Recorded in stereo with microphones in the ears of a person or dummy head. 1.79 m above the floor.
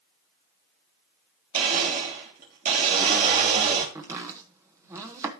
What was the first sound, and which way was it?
A blender, 50° right (ahead or behind).